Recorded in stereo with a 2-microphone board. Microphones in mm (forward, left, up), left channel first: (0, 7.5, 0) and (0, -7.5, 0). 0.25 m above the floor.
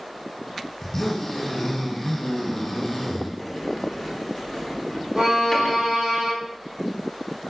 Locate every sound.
0.8 s a zipper: 25° left (ahead or behind), 1.0 m
3.4 s a sliding door: 25° left (ahead or behind), 1.0 m
5.2 s a violin: 75° right (ahead or behind), 1.5 m